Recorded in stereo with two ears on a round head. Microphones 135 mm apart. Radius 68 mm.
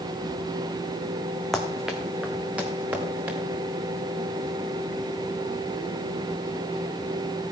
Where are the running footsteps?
5° left (ahead or behind), 1.8 m; by 3.4 s 15° right (ahead or behind), 4.5 m.